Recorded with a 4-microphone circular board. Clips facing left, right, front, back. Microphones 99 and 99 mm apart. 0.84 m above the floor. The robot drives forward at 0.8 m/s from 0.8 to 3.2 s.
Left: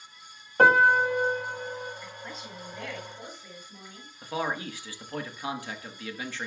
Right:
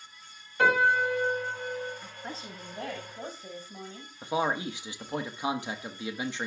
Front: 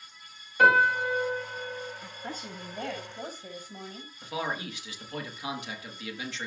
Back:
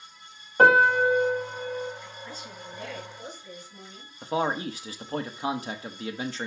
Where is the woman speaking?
30° right, 8 m; by 4.1 s 35° right, 7.5 m.